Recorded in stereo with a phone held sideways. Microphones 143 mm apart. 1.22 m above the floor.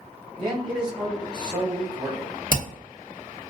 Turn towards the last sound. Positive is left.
turn(degrees=70)  # may be behind; listen again after turning